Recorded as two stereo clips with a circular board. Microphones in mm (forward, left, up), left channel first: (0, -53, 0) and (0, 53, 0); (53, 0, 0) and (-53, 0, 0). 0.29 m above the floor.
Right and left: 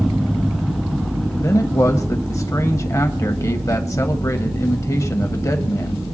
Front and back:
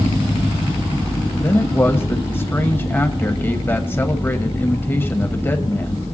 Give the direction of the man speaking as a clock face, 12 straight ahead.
2 o'clock.